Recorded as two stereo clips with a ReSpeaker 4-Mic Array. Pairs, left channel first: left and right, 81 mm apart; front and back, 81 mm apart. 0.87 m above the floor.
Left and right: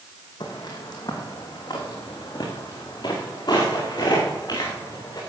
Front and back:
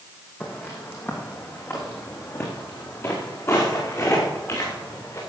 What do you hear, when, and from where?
0.4 s footsteps: 60° left, 3 m; by 5.2 s 50° left, 5.5 m